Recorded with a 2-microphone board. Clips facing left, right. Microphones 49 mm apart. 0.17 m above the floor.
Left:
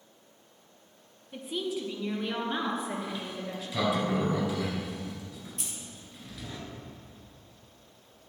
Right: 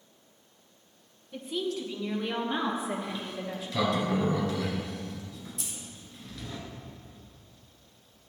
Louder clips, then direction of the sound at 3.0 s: Right 1 dB; 10° left (ahead or behind).